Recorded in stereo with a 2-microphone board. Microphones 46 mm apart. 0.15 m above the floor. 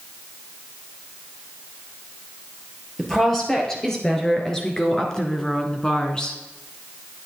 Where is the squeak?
I don't hear a squeak.